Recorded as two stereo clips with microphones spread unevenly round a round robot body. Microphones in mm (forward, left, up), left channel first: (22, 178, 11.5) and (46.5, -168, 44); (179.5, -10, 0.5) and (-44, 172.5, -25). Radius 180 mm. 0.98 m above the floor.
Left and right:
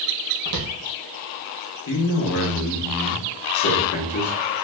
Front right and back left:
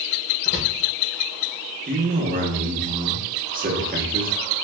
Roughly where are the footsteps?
Right.